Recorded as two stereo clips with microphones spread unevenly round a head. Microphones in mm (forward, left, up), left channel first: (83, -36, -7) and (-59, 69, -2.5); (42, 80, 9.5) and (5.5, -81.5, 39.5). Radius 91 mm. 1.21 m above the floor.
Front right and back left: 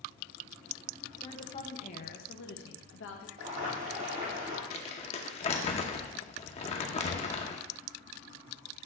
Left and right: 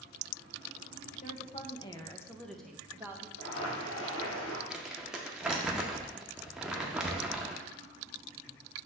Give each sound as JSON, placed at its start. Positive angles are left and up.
{"t": 1.2, "sound": "a woman speaking", "azimuth_deg": 30, "distance_m": 1.2}
{"t": 3.4, "sound": "boiling", "azimuth_deg": 100, "distance_m": 2.5}
{"t": 4.7, "sound": "crumpling", "azimuth_deg": -40, "distance_m": 0.8}